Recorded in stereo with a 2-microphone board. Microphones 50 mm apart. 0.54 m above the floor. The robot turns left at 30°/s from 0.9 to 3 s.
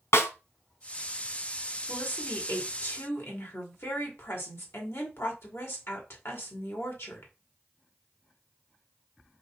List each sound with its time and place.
0.1 s a snare drum: 65° left (ahead or behind), 1.1 m
1.9 s a woman speaking: 130° left, 2.0 m; by 7.3 s 95° left, 2.0 m